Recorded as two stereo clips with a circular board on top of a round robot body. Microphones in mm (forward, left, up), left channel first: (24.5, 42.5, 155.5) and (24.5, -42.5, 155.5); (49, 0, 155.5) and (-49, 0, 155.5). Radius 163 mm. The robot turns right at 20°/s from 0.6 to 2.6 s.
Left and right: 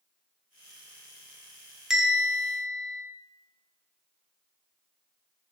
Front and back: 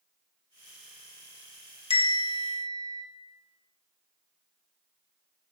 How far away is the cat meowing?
I don't hear a cat meowing.